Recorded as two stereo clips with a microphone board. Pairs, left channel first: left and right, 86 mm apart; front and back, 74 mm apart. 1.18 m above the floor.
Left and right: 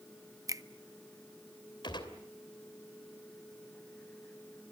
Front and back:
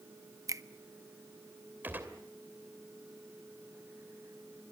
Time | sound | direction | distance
0.5 | a finger snap | 135° right | 0.7 m
1.8 | a gunshot | 115° left | 2.5 m